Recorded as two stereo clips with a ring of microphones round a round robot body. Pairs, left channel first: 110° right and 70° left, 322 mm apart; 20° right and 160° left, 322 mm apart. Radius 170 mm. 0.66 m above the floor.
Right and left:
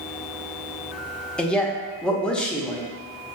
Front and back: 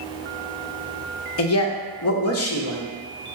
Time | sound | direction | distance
1.4 | a man speaking | 25° right | 0.7 m